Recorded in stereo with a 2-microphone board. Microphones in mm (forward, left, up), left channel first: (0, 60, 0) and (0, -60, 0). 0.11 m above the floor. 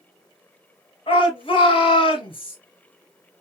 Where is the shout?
45° left (ahead or behind), 2 m.